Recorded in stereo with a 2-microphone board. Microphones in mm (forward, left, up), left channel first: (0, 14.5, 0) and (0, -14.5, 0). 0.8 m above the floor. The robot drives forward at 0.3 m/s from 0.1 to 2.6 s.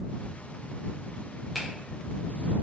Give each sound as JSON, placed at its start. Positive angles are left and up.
{"t": 1.6, "sound": "a finger snap", "side_deg": -5, "distance_m": 0.8}